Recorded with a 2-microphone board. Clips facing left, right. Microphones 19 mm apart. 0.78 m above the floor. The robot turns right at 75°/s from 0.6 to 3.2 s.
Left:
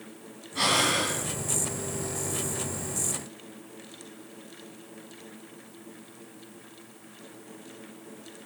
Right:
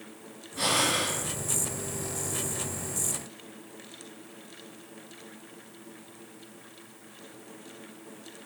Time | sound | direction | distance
0.6 | breathing | 140° left | 3 m